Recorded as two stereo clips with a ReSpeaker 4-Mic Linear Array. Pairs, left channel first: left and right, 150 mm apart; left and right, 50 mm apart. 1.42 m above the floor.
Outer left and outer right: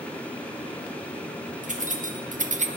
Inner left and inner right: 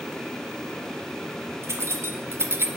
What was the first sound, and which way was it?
Keys jangling, 60° right (ahead or behind).